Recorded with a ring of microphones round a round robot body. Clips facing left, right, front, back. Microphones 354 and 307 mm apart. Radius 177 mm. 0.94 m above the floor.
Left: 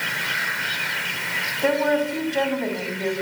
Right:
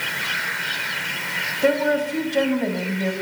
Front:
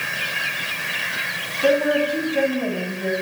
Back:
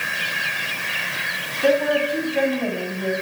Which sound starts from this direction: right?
A woman speaking, at 1.6 s.